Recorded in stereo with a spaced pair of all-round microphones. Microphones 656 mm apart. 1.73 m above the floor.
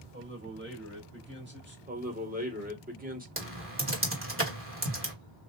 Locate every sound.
0.1 s a man speaking: 15° right (ahead or behind), 3 m
1.9 s a man speaking: 15° right (ahead or behind), 1.8 m
3.4 s typing on a keyboard: 20° right (ahead or behind), 1.8 m